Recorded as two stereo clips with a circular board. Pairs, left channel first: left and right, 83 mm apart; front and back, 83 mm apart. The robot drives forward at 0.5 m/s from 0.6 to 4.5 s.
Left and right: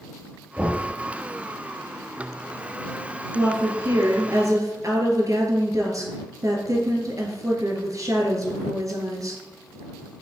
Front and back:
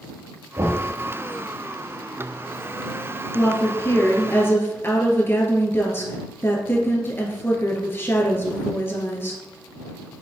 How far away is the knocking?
About 1.8 m.